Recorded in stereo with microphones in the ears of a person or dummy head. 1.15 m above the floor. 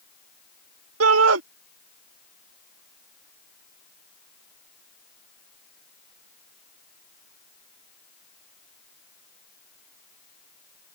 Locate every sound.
1.0 s a shout: 80° right